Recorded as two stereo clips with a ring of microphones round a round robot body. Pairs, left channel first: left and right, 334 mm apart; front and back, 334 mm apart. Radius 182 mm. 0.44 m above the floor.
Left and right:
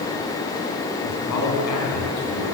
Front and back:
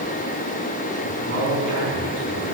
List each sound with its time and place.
1.0 s a man speaking: 120° left, 4 m; by 2.5 s 125° left, 5 m